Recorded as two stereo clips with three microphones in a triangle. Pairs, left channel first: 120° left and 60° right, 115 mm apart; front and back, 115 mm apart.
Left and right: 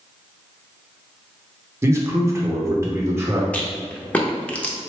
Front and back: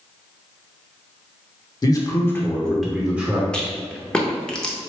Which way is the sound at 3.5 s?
70° left.